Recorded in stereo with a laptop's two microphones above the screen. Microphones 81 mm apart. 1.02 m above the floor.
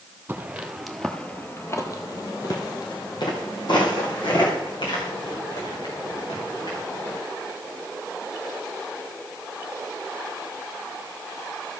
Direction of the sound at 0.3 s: 20° right (ahead or behind).